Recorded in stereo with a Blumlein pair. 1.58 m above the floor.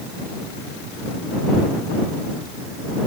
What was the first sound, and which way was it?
Only background noise.